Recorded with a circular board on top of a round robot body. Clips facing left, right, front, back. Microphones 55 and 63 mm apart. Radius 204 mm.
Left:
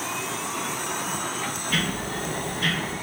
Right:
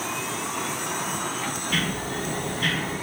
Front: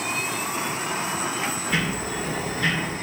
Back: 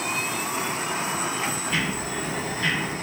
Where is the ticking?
30° left, 0.5 m.